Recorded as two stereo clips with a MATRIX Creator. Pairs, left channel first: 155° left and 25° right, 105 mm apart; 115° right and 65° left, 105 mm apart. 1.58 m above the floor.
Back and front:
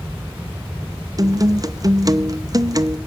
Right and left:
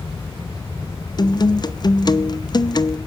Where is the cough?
No cough in this recording.